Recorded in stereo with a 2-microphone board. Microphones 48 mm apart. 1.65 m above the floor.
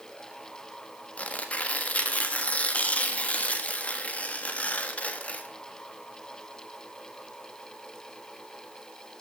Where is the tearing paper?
30° left (ahead or behind), 1.1 m.